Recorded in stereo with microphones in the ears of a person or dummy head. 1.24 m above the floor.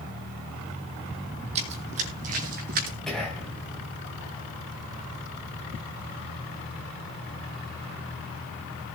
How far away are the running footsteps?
About 3 m.